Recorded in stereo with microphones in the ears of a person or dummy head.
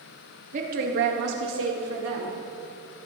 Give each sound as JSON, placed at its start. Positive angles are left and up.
{"t": 0.5, "sound": "a woman speaking", "side_deg": -45, "distance_m": 1.6}